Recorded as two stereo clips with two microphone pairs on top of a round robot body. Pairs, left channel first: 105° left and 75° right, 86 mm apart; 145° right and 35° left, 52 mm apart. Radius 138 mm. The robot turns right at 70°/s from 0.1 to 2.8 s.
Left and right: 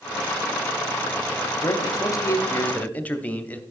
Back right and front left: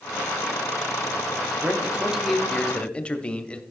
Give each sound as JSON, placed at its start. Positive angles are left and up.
{"t": 1.6, "sound": "a man speaking", "azimuth_deg": 80, "distance_m": 1.0}